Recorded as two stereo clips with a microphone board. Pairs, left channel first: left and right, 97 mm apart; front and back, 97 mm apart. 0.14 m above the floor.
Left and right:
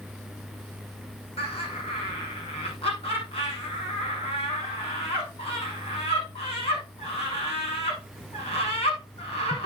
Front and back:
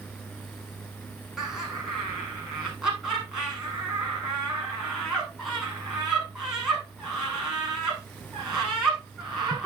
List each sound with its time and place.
1.4 s laughter: 95° left, 6.5 m